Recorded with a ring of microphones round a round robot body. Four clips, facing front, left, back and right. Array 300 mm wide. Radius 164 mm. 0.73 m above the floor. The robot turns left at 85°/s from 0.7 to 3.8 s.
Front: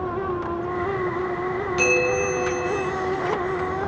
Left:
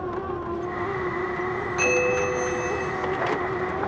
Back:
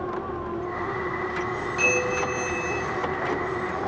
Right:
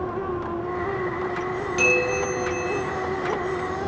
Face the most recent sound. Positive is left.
turn(degrees=130)